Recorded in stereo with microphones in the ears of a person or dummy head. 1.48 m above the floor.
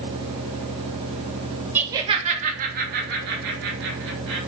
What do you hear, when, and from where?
1.8 s laughter: 10° right (ahead or behind), 0.8 m; by 4.4 s 70° right (ahead or behind), 2.5 m